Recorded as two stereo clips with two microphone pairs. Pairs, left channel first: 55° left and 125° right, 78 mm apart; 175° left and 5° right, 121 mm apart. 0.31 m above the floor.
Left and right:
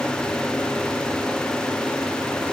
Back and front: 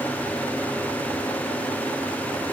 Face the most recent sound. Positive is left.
No sound to turn to.